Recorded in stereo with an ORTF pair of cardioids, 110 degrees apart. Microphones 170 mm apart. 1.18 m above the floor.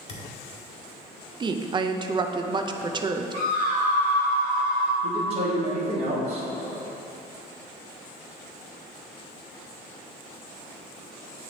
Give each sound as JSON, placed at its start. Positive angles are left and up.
{"t": 0.1, "sound": "a thud", "azimuth_deg": 40, "distance_m": 1.6}
{"t": 1.4, "sound": "a woman speaking", "azimuth_deg": -25, "distance_m": 0.6}
{"t": 3.3, "sound": "a scream", "azimuth_deg": -50, "distance_m": 2.0}
{"t": 5.0, "sound": "a man speaking", "azimuth_deg": -40, "distance_m": 1.9}